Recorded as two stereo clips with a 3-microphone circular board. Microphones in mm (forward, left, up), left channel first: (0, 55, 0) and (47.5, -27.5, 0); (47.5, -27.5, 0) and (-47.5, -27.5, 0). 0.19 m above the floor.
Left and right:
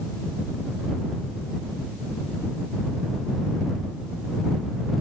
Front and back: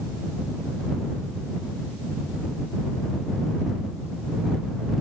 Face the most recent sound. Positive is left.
No sound to turn to.